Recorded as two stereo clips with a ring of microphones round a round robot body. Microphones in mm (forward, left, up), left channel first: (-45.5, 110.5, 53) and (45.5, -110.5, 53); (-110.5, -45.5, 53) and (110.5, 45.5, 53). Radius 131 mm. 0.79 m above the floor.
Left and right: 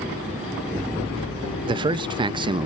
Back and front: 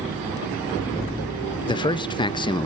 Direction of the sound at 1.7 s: 110° right.